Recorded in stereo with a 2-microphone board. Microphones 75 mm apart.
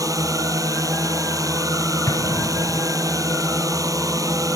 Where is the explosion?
55° left (ahead or behind).